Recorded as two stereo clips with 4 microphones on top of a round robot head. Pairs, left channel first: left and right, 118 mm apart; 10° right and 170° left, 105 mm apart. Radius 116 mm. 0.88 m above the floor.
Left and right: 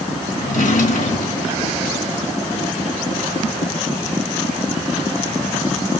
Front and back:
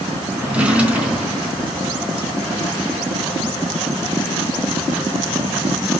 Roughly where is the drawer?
Left.